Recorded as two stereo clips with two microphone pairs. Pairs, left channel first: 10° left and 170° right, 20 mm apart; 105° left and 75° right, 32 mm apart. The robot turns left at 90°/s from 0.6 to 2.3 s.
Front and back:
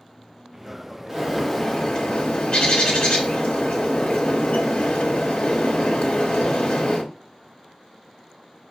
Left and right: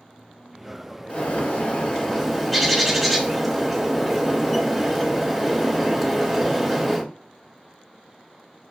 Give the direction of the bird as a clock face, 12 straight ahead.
8 o'clock.